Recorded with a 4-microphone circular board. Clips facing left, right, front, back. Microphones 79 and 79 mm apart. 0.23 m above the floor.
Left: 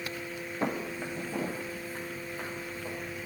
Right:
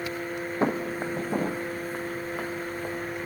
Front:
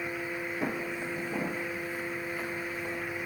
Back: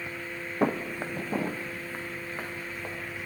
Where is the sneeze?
No sneeze in this recording.